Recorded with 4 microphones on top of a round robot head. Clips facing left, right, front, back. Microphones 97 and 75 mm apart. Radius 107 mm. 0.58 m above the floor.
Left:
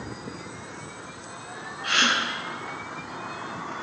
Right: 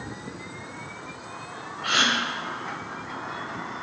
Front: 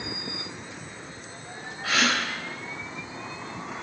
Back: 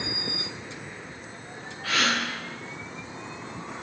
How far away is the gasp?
About 3.5 m.